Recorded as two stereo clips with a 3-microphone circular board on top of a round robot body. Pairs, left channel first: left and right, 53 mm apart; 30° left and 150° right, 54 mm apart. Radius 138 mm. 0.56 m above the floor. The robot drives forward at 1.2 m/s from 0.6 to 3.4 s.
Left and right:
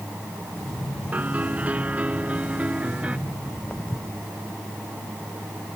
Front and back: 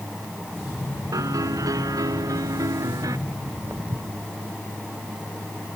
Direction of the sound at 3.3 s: 165° left.